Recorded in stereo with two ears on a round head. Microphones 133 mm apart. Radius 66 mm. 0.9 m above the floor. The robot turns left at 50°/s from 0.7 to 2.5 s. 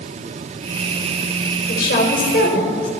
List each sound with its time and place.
1.7 s a woman speaking: 100° left, 3 m; by 2.9 s 60° left, 3 m